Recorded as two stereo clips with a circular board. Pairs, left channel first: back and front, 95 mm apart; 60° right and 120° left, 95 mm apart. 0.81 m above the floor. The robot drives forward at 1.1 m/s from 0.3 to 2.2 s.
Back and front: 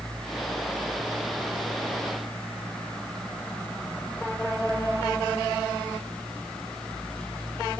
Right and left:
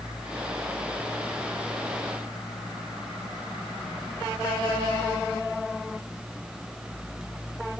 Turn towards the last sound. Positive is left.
No sound to turn to.